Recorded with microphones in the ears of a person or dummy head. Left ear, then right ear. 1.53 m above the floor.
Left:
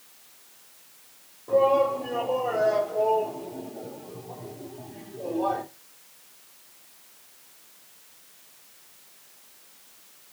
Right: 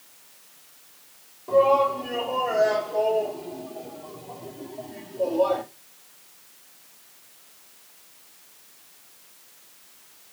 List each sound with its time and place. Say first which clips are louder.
1.5 s a shout: right 2 dB; 75° right (ahead or behind), 5 m; by 5.6 s 65° right (ahead or behind), 2 m